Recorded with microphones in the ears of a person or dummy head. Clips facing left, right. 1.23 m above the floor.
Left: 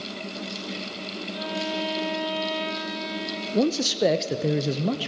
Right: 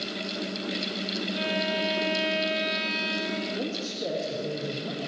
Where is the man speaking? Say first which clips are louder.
Left 9 dB; 80° left, 0.9 m.